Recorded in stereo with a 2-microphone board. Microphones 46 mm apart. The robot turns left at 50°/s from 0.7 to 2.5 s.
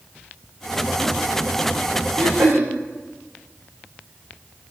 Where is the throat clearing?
80° right, 7.5 m.